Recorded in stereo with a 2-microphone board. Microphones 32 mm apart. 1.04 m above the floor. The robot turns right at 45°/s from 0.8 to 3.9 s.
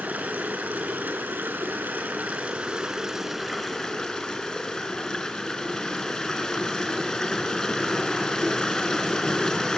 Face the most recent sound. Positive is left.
turn(degrees=25)